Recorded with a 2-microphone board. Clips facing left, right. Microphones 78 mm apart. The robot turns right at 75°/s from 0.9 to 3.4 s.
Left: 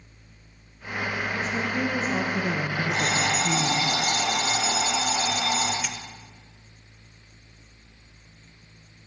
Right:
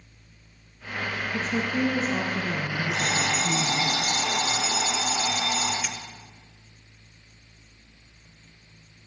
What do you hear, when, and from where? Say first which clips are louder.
1.3 s a woman speaking: right 3 dB; 50° right, 1.1 m; by 3.9 s 105° left, 1.1 m
2.9 s an alarm clock: left 1 dB; 65° left, 3.5 m; by 5.7 s 105° left, 3.5 m
5.8 s a dropped coin: even; 10° right (ahead or behind), 0.9 m